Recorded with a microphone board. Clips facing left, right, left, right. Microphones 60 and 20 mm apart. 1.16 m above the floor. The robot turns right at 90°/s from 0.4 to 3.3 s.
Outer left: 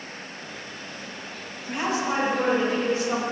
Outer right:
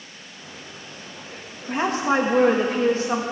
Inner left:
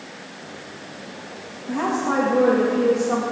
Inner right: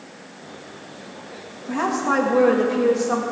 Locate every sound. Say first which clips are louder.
1.7 s a woman speaking: outer right 4 dB, inner right 1 dB; 155° right, 1.7 m; by 3.2 s 15° right, 1.7 m